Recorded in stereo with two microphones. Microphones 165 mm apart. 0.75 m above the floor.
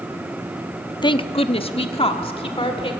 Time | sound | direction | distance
1.0 | a woman speaking | 25° left (ahead or behind) | 0.5 m